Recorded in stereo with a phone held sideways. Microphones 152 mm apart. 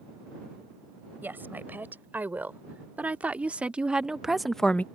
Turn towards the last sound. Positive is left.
turn(degrees=10)  # may be behind; listen again after turning